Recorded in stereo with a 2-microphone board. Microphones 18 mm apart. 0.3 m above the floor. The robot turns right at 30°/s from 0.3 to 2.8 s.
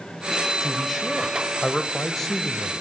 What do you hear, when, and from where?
0.6 s a man speaking: 5° right (ahead or behind), 0.9 m; by 2.8 s 25° left (ahead or behind), 0.9 m